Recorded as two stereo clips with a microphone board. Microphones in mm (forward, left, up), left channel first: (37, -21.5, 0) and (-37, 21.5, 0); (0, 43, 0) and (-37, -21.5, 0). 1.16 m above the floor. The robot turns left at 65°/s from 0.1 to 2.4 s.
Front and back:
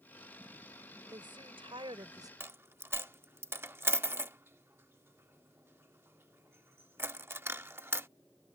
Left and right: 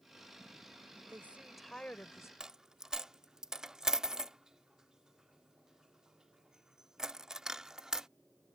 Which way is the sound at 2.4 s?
165° left.